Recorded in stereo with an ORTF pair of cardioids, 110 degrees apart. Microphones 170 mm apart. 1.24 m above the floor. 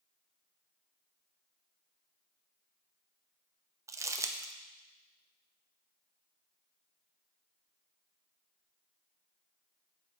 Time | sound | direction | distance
3.9 | crumpling | 20° right | 0.8 m